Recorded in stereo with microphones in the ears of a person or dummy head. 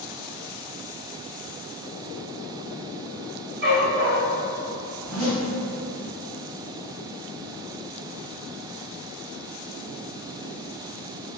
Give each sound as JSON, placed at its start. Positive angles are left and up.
{"t": 3.6, "sound": "a dog barking", "side_deg": -35, "distance_m": 1.0}
{"t": 5.0, "sound": "a zipper", "side_deg": -5, "distance_m": 1.3}